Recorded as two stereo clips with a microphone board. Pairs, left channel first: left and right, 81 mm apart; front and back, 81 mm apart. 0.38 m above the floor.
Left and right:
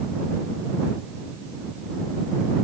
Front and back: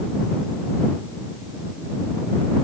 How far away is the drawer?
No drawer in this recording.